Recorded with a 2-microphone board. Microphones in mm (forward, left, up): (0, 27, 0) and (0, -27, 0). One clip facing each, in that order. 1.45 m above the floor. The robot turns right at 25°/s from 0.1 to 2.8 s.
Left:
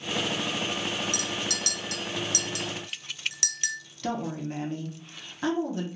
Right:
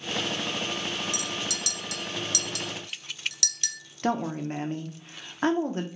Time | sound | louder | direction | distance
1.1 | a clink | left 1 dB | 55° left (ahead or behind) | 0.5 m
4.0 | a woman speaking | right 4 dB | 40° right (ahead or behind) | 0.6 m